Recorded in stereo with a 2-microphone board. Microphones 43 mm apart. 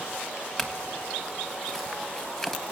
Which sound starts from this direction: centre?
A clink, at 0.6 s.